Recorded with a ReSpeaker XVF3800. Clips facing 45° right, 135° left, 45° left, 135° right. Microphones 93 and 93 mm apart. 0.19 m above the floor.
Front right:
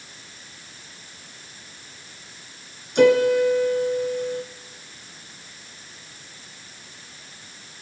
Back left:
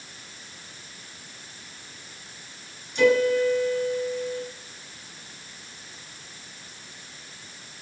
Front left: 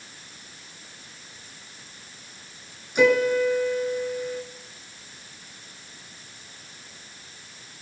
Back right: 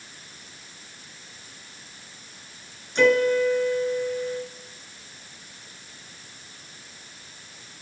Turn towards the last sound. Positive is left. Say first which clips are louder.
# front right 4 dB, even
turn(degrees=-35)